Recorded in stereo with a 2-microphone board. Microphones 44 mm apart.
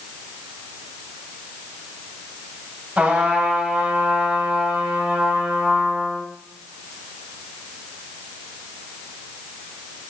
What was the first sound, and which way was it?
A trumpet, 30° right (ahead or behind).